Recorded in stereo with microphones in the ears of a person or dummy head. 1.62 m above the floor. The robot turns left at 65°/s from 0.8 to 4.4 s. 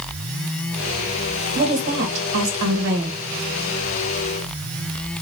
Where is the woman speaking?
30° right, 1.4 m; by 3.2 s 135° right, 1.4 m.